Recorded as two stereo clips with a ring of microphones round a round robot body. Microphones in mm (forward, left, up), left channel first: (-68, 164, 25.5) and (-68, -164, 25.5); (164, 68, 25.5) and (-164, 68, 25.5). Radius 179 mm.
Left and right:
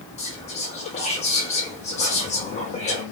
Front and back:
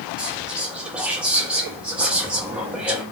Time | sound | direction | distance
0.2 | whispering | 100° left | 0.6 m